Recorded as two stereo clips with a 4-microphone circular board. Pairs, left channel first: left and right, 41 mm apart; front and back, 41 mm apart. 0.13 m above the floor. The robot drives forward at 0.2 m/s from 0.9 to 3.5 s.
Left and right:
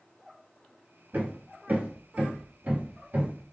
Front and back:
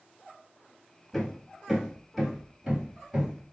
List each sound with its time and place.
1.1 s hammering: 80° right, 1.0 m; by 3.5 s 115° right, 1.0 m